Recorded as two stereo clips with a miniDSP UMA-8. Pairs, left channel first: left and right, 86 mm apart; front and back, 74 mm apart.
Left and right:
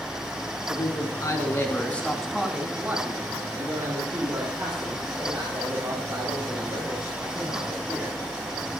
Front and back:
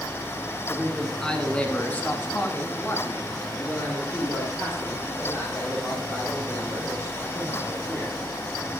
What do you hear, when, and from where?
0.7 s a man speaking: 90° left, 2.5 m; by 8.2 s 65° right, 8.5 m